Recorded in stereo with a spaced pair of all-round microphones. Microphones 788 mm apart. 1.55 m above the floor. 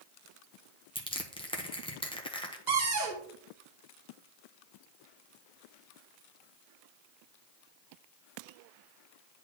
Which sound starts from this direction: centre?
Crushing, at 0.9 s.